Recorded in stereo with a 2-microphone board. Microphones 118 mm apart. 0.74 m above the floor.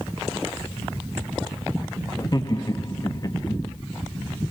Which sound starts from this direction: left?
Laughter, at 2.2 s.